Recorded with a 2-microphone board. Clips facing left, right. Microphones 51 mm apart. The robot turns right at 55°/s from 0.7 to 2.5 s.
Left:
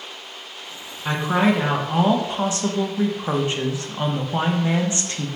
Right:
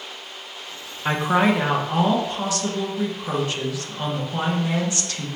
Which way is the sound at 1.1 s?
40° right.